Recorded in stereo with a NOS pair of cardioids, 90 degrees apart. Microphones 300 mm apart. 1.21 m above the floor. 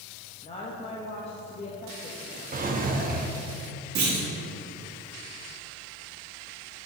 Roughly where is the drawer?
Ahead right.